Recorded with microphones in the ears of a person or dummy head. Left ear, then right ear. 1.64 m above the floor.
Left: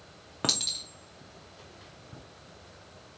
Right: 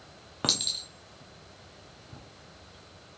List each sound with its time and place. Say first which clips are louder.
0.4 s a clink: right 1 dB; centre (ahead or behind), 0.5 m